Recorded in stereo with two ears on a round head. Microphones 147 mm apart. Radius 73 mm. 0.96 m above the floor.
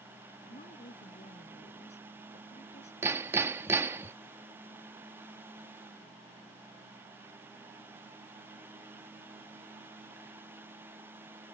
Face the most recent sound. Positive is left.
turn(degrees=-15)  # may be behind; listen again after turning